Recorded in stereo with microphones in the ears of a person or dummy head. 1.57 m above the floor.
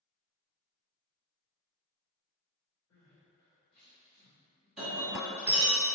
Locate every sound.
2.9 s crying: 45° left (ahead or behind), 1.8 m
4.8 s breaking glass: 5° right (ahead or behind), 1.8 m